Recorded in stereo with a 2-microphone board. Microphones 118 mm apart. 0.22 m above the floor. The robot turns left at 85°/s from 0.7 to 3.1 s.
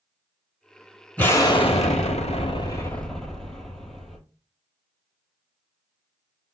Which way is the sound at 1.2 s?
165° left.